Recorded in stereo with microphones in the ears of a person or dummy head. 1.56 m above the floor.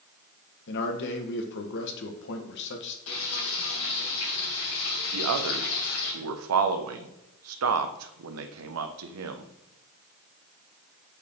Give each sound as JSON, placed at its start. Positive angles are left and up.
{"t": 0.7, "sound": "a man speaking", "side_deg": 65, "distance_m": 1.4}
{"t": 3.1, "sound": "frying", "side_deg": 75, "distance_m": 3.5}
{"t": 5.1, "sound": "a man speaking", "side_deg": -80, "distance_m": 1.0}